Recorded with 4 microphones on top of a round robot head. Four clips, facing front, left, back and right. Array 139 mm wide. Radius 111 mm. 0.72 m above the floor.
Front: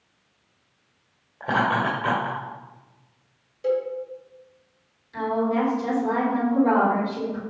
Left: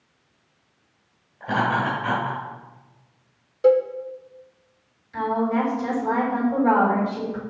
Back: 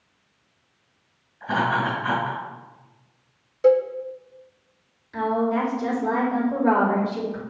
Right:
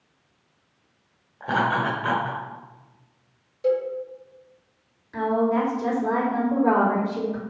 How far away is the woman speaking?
About 3.5 m.